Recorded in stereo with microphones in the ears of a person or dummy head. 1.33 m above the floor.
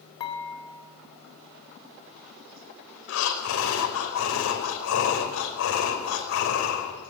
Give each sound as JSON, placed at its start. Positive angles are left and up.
{"t": 0.2, "sound": "dishes clattering", "side_deg": 30, "distance_m": 3.5}
{"t": 3.1, "sound": "breathing", "side_deg": 80, "distance_m": 5.5}